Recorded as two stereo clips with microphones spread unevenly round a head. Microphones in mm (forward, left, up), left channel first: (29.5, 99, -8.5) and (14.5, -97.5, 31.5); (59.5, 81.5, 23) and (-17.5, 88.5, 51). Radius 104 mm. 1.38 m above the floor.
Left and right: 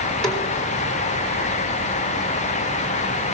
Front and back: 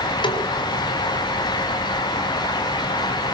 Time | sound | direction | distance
0.2 | a snare drum | straight ahead | 3.5 m